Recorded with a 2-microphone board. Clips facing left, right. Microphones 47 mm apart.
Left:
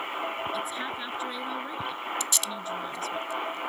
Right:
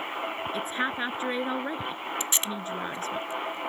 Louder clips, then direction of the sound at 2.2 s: Right 1 dB; 30° right (ahead or behind).